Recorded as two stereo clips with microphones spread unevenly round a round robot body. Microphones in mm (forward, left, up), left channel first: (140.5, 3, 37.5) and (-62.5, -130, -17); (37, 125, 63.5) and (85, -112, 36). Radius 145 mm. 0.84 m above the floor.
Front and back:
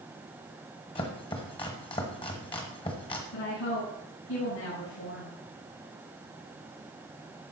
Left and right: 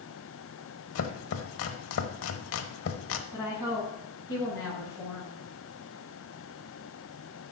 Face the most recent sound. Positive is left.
turn(degrees=25)